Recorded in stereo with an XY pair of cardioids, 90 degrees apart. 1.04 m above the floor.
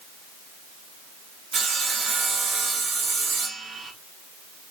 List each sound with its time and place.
1.5 s sawing: 55° right, 1.4 m